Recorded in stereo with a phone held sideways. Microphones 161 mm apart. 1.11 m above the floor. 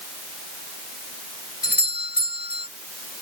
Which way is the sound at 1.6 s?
80° left.